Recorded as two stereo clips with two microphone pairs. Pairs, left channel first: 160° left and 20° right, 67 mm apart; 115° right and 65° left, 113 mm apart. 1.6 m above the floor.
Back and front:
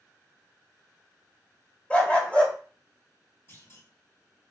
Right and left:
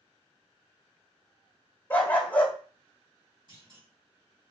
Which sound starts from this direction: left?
A clunk, at 3.5 s.